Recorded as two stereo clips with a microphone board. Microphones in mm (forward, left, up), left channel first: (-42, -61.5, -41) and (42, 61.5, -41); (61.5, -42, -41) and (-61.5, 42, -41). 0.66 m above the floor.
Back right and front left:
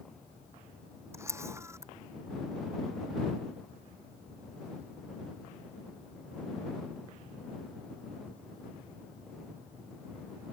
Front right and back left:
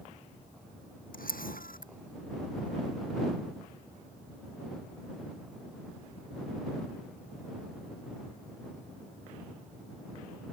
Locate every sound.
1.1 s a camera shutter: 15° right